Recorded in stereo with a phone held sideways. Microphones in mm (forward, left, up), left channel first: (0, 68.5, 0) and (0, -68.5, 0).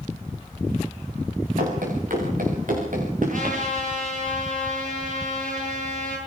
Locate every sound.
1.6 s running footsteps: 80° right, 7 m; by 3.6 s 70° right (ahead or behind), 7 m
3.3 s a trumpet: 75° right (ahead or behind), 10 m